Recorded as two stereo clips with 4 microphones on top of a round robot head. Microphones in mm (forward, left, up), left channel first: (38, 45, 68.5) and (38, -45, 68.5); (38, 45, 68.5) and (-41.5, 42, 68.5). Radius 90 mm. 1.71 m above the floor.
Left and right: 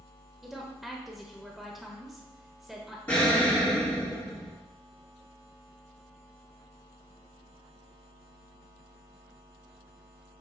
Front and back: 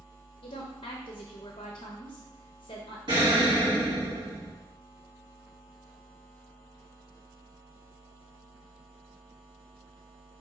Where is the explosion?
160° left, 2.0 m.